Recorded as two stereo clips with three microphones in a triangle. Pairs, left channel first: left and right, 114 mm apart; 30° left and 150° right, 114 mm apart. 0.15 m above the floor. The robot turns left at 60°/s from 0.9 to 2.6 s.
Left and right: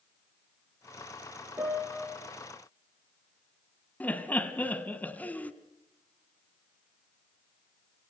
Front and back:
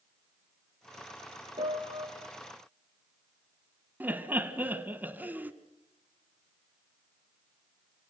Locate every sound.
1.6 s a piano: 155° right, 2.5 m; by 2.1 s 175° left, 2.5 m
4.0 s laughter: 150° left, 1.3 m